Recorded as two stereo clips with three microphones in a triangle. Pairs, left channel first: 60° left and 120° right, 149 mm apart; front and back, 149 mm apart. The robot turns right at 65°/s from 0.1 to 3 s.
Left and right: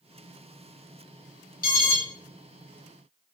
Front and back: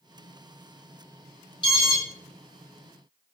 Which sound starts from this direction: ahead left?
An alarm, at 1.6 s.